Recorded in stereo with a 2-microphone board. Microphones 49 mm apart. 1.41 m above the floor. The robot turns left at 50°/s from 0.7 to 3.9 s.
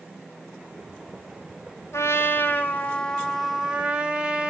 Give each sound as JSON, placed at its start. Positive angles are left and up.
{"t": 1.9, "sound": "a trumpet", "azimuth_deg": 70, "distance_m": 2.5}